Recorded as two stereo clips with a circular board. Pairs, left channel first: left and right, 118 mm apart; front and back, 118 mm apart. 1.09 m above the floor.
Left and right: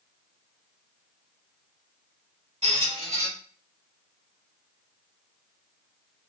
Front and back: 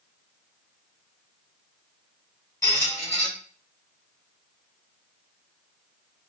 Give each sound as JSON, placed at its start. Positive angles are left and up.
{"t": 2.6, "sound": "a squeak", "azimuth_deg": -65, "distance_m": 1.6}